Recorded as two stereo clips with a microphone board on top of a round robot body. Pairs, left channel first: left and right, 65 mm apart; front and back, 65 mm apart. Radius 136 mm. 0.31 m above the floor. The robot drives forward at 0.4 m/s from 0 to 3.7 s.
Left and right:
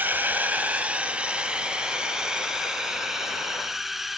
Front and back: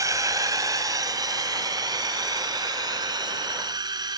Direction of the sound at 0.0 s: 150° right.